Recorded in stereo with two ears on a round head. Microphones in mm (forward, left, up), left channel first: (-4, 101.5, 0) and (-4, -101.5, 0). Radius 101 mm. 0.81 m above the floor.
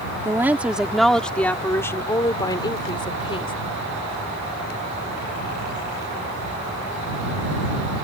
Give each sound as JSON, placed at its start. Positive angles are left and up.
{"t": 0.2, "sound": "a woman speaking", "side_deg": -10}